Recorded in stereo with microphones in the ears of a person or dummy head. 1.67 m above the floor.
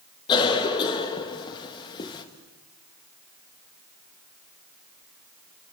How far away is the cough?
About 2.5 m.